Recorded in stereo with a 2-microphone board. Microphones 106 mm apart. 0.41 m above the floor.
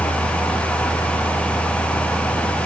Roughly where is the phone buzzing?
I don't hear a phone buzzing.